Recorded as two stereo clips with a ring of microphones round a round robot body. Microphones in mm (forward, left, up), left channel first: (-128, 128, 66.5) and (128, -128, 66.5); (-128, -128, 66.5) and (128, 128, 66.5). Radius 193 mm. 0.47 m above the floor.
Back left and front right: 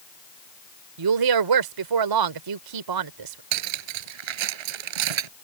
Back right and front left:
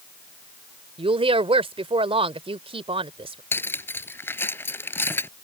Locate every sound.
1.0 s a woman speaking: 30° right
3.5 s cutlery clinking: 50° right